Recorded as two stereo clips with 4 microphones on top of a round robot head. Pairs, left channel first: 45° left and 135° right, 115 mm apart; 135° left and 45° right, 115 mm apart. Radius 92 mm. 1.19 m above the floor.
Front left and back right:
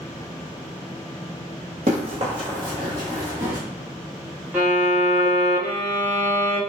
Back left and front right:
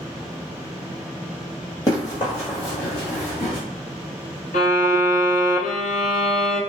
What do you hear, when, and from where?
1.9 s running footsteps: 170° right, 1.6 m; by 3.6 s 160° left, 2 m
4.5 s a violin: 145° left, 0.9 m